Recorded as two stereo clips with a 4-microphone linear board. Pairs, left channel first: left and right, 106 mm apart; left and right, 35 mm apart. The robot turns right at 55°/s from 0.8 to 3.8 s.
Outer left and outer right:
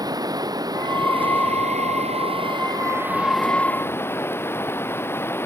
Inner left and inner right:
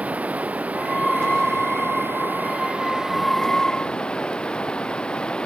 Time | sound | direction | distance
0.0 | running water | 145° right | ?